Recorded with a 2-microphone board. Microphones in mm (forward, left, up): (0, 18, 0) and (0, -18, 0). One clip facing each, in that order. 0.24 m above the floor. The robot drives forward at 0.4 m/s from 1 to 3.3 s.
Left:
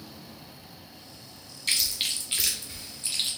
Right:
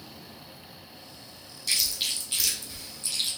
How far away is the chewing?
About 1.1 m.